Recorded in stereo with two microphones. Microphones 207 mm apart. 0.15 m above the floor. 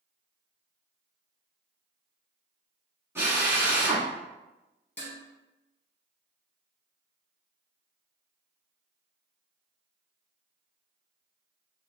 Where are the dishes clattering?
35° left (ahead or behind), 1.6 m.